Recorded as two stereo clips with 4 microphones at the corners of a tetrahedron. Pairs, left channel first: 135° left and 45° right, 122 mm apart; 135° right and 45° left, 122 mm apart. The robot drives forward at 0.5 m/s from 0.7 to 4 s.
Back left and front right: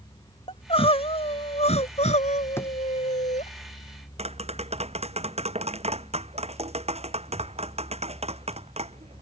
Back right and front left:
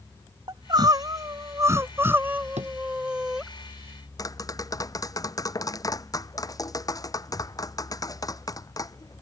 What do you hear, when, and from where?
0.5 s crying: 100° left; by 3.5 s 130° left
2.6 s a drawer: 65° left
4.2 s tapping: 75° right